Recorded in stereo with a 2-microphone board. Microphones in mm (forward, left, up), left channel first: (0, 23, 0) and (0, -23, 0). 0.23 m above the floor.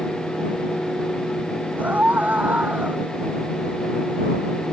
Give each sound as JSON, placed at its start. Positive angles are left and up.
{"t": 1.8, "sound": "a scream", "side_deg": -35}